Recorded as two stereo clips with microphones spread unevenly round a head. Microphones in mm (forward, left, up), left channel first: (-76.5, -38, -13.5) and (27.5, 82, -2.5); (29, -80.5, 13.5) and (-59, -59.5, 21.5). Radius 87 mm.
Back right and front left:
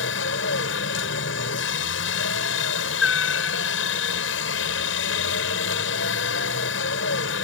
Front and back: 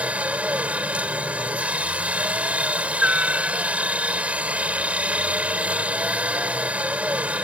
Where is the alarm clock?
No alarm clock in this recording.